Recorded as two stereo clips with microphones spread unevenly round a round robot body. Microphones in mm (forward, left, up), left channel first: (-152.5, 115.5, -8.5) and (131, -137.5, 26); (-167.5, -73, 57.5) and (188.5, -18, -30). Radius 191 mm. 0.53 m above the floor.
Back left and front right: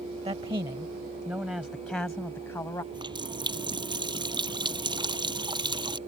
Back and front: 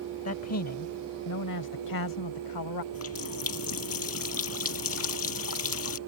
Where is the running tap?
120° right.